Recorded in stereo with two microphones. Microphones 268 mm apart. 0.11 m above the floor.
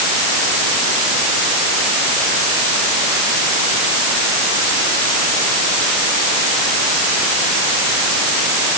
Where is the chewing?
I don't hear chewing.